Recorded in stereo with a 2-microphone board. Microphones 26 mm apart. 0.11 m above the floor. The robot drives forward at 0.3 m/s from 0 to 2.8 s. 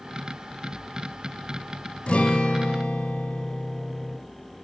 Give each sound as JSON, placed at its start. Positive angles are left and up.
{"t": 2.1, "sound": "a guitar", "side_deg": 50, "distance_m": 1.1}